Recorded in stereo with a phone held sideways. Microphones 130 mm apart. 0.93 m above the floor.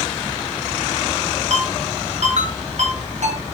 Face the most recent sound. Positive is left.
turn(degrees=-65)  # may be behind; listen again after turning